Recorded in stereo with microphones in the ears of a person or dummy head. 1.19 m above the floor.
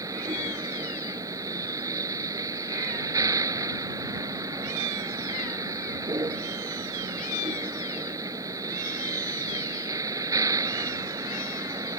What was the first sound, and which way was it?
A vehicle, 15° right (ahead or behind).